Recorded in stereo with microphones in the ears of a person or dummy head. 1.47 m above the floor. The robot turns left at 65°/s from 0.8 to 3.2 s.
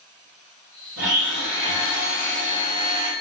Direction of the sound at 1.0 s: 100° right.